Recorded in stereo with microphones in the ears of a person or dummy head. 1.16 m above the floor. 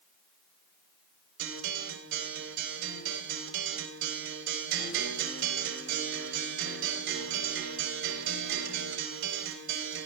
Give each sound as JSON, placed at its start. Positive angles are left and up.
{"t": 1.4, "sound": "a guitar", "side_deg": -75, "distance_m": 4.0}